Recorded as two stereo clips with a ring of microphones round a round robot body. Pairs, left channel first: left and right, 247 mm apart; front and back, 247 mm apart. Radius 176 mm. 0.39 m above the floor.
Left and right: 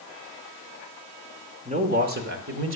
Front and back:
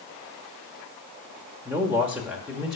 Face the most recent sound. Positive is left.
turn(degrees=-90)